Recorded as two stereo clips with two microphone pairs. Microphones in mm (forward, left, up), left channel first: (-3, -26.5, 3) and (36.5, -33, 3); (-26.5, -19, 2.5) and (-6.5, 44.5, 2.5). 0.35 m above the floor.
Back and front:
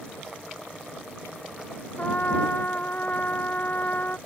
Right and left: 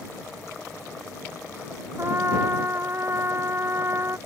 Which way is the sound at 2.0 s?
125° left.